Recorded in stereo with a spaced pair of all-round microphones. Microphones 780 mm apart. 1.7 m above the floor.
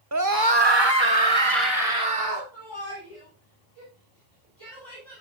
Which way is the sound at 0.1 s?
20° right (ahead or behind).